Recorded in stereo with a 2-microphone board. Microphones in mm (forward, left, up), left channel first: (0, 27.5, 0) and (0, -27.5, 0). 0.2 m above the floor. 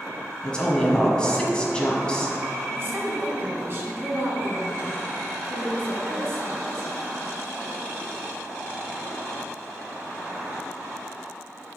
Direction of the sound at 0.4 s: 15° left (ahead or behind).